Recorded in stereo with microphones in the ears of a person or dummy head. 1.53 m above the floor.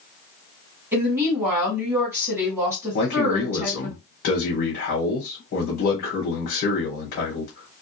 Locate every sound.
0.9 s a woman speaking: 10° right (ahead or behind), 1.6 m
2.9 s a man speaking: 55° left (ahead or behind), 1.1 m